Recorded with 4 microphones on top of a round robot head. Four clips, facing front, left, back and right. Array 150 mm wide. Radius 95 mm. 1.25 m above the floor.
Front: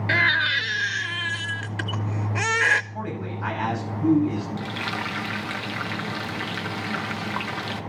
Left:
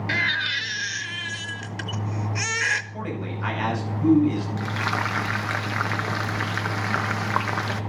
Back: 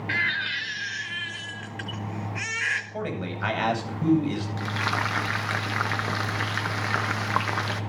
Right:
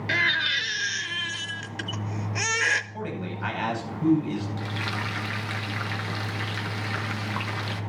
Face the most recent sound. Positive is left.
turn(degrees=125)